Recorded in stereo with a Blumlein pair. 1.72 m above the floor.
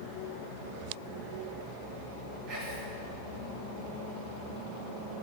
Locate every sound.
2.5 s whispering: 35° right, 2.0 m